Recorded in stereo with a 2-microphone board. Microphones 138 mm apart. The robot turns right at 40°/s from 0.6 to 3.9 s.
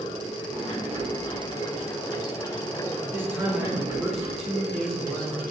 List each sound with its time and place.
0.0 s running water: 80° left, 1.5 m; by 5.5 s 150° right, 1.5 m
3.0 s a man speaking: 35° right, 1.0 m; by 5.4 s straight ahead, 1.0 m